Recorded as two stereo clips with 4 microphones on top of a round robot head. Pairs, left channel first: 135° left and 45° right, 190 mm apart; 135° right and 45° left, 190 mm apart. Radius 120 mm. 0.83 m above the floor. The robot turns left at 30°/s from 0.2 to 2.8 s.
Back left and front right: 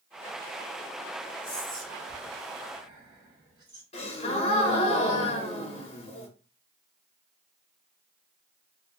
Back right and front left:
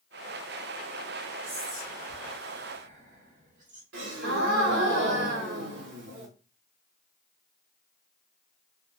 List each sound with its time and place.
1.4 s whispering: 55° left, 1.6 m; by 3.8 s 15° left, 1.6 m
3.9 s a gasp: 75° left, 0.7 m